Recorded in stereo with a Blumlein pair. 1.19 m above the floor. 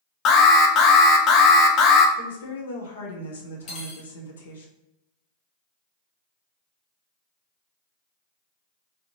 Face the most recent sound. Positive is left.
turn(degrees=35)